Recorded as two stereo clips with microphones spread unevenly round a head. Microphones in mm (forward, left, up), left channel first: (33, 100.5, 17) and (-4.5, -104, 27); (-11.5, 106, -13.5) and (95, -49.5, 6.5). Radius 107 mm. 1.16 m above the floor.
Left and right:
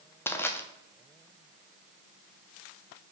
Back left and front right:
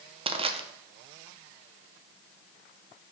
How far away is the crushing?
About 0.8 m.